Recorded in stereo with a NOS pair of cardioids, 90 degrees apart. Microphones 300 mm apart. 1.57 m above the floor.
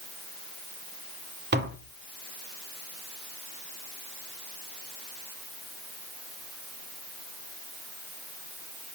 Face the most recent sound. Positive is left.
turn(degrees=-35)